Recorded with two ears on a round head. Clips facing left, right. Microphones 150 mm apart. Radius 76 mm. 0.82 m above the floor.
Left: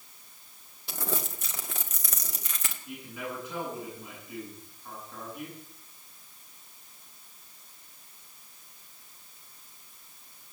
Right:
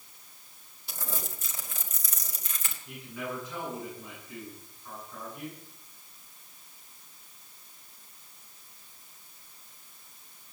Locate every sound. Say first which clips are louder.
0.9 s crumpling: left 5 dB; 55° left (ahead or behind), 2 m
2.9 s a man speaking: right 1 dB; 15° left (ahead or behind), 9 m